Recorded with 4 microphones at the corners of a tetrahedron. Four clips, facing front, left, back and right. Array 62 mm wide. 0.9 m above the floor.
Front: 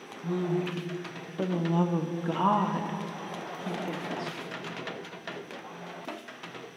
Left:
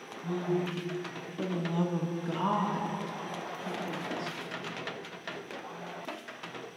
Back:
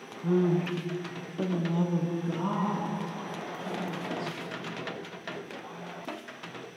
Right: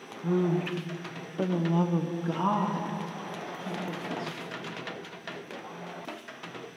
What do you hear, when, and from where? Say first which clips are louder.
0.2 s a woman speaking: right 4 dB, back 4 dB; 125° right, 0.8 m; by 4.4 s 5° left, 1.9 m